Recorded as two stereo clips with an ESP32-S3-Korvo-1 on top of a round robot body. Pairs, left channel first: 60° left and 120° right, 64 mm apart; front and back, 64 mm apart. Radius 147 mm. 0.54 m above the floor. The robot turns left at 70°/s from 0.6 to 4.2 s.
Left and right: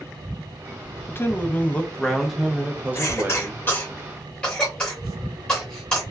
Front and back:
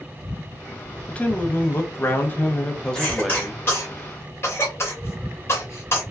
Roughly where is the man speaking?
Ahead left.